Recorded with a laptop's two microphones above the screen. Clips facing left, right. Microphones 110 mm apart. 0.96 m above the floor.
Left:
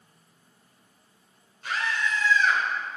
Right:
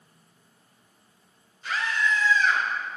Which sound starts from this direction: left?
A scream, at 1.6 s.